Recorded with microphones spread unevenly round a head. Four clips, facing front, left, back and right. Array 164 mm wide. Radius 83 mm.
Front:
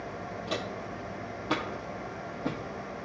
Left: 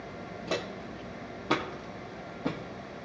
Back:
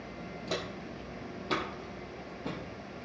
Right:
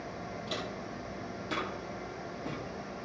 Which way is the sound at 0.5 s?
95° left.